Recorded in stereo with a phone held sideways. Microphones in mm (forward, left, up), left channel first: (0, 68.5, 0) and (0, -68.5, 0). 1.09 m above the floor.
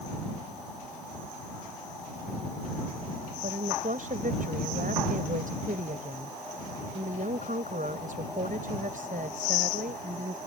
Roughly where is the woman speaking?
Right.